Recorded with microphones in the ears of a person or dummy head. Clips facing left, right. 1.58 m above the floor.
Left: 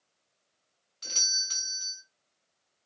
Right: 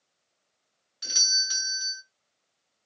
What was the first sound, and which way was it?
A doorbell, 15° right (ahead or behind).